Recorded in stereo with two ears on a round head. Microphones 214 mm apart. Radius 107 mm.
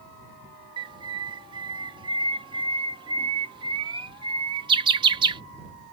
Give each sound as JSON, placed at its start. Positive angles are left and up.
{"t": 0.8, "sound": "a bird", "side_deg": -20}